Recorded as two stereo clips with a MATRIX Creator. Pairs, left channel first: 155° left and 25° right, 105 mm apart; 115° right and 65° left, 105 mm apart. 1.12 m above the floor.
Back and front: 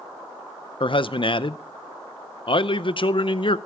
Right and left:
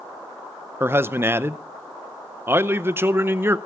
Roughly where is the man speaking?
Behind left.